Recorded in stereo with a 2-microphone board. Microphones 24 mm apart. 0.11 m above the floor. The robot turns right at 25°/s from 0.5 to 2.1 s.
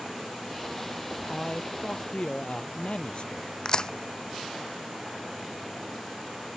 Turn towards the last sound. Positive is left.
turn(degrees=30)  # may be behind; listen again after turning